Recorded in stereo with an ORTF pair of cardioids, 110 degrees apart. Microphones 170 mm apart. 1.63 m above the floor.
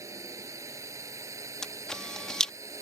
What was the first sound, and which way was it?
A drone, 20° right.